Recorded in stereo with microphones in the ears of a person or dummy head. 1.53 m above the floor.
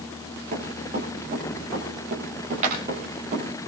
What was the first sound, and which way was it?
Running footsteps, 45° right (ahead or behind).